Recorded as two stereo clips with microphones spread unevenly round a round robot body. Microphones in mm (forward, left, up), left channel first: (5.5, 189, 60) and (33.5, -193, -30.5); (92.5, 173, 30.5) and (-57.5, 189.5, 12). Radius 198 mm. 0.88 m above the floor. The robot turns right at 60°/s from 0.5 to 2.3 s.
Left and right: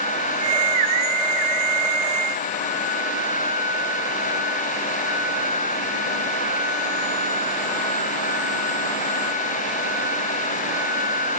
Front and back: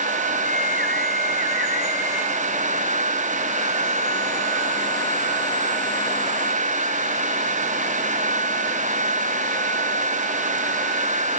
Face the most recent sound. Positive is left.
No sound to turn to.